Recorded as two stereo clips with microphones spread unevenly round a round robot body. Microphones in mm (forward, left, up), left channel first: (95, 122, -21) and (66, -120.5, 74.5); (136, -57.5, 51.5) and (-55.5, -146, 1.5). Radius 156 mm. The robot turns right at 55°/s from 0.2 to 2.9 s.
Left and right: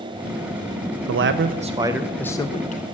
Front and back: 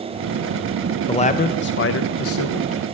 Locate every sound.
1.1 s a man speaking: 50° right, 0.5 m; by 2.8 s 45° left, 0.5 m